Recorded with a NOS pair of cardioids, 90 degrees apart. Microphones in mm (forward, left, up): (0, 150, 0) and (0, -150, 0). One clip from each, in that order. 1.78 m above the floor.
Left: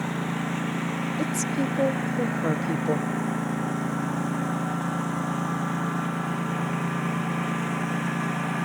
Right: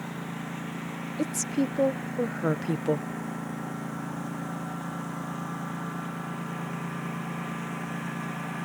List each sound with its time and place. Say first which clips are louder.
0.0 s a lawn mower: left 7 dB; 50° left; by 8.7 s 40° left
1.2 s a woman speaking: right 1 dB; 5° right